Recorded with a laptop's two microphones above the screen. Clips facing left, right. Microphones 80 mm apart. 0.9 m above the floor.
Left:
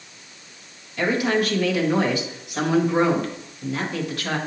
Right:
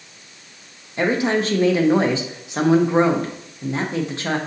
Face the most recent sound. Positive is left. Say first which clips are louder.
# right 2 dB
turn(degrees=-30)  # may be behind; listen again after turning